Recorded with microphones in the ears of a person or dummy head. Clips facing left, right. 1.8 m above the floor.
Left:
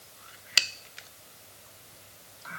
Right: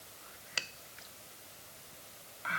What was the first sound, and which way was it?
Only background noise.